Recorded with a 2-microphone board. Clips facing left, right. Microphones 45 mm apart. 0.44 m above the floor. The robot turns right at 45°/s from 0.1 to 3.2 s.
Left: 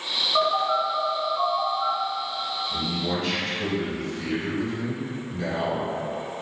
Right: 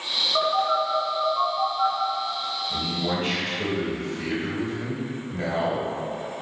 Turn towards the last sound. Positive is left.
turn(degrees=-45)  # may be behind; listen again after turning